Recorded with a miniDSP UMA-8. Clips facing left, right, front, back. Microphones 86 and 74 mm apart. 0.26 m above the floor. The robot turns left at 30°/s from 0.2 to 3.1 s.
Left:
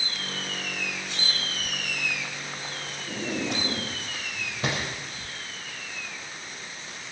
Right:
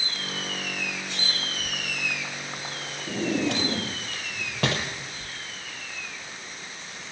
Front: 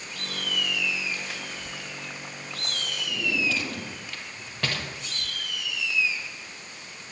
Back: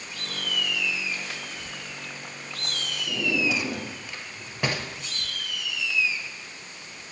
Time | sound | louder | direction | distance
3.1 | a drawer | right 5 dB, back 2 dB | 105° right | 4 m